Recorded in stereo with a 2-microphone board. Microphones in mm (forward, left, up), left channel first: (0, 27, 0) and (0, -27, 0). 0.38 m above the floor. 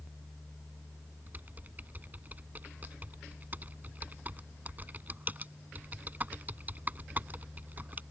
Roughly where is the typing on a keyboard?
Right.